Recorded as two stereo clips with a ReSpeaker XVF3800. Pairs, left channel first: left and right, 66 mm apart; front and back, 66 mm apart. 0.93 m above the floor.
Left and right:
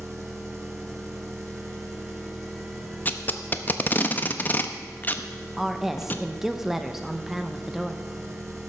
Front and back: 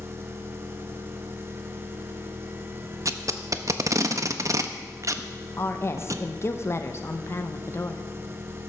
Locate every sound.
0.0 s an engine running: 130° right, 1.6 m
3.0 s tape being pulled: 150° left, 0.6 m
5.6 s a woman speaking: 5° right, 0.7 m